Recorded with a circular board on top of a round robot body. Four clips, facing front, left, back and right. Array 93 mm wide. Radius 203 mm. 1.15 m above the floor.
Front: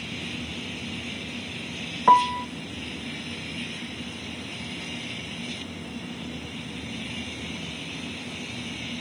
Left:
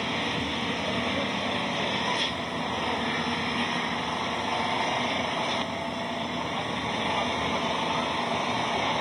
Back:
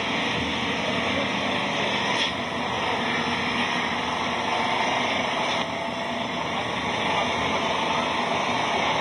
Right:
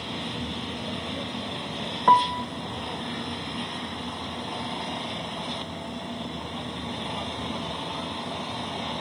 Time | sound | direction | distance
0.0 | an engine running | 160° left | ?
2.1 | a piano | 40° right | ?